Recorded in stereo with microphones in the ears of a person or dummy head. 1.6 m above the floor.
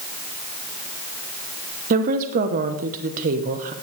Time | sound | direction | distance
1.9 | a woman speaking | 45° right (ahead or behind) | 1.0 m